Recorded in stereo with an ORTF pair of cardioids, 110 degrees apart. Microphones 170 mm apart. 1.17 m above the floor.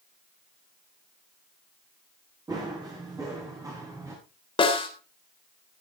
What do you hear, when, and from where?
2.5 s running footsteps: 20° right, 8 m; by 4.2 s 15° right, 6.5 m
4.6 s a snare drum: 30° left, 3.5 m